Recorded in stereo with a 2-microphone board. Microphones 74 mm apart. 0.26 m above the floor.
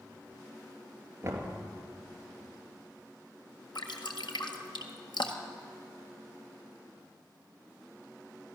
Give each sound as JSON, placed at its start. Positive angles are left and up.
{"t": 1.2, "sound": "knocking", "side_deg": -35, "distance_m": 3.0}
{"t": 3.8, "sound": "dripping", "side_deg": 85, "distance_m": 1.6}